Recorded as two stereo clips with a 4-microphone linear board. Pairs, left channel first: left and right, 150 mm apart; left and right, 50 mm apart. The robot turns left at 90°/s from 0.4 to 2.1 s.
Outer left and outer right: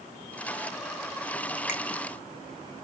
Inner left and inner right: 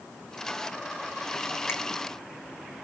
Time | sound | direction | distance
1.7 | a finger snap | 55° left (ahead or behind) | 0.9 m